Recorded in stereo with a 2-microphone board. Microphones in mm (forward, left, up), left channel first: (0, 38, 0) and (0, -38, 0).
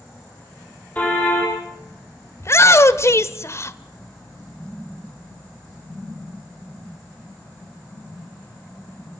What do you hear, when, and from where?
0.9 s a car horn: 20° left (ahead or behind), 8.5 m
2.4 s a shout: 40° left (ahead or behind), 1.2 m